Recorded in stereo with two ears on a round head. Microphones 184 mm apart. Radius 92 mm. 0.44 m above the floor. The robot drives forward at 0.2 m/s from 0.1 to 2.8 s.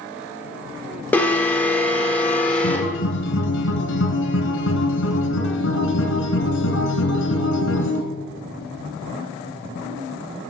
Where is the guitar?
70° left (ahead or behind), 1.9 m; by 8.0 s 65° left (ahead or behind), 1.9 m.